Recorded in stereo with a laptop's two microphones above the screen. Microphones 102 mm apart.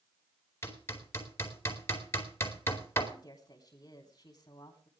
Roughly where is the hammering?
Left.